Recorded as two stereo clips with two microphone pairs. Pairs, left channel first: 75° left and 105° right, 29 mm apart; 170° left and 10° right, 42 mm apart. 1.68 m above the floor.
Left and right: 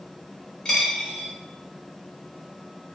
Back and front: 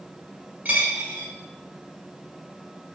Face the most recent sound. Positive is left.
turn(degrees=20)